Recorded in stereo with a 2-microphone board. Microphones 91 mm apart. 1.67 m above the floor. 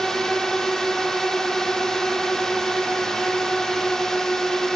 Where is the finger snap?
No finger snap in this recording.